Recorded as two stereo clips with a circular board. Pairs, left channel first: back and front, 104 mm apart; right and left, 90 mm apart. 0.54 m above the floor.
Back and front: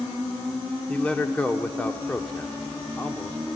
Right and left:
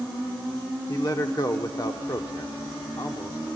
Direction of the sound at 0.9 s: 105° right.